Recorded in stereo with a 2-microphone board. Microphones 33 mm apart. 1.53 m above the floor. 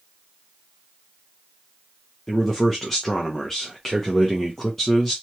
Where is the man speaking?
10° left (ahead or behind), 0.6 m.